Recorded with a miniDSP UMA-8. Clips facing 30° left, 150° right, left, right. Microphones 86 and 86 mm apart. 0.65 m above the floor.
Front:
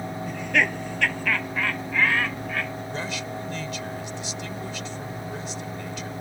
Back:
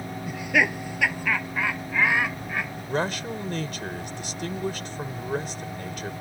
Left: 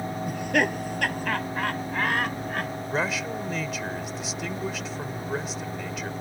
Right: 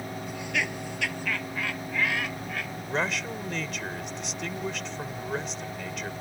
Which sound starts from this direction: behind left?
Laughter, at 0.3 s.